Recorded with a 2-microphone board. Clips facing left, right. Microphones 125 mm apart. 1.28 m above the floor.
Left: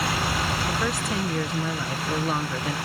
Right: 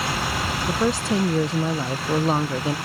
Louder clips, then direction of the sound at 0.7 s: Right 5 dB; 30° right (ahead or behind).